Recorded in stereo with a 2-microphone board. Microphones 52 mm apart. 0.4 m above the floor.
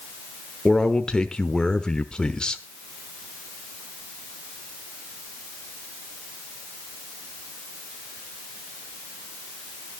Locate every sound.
0.7 s a man speaking: 15° left (ahead or behind), 0.9 m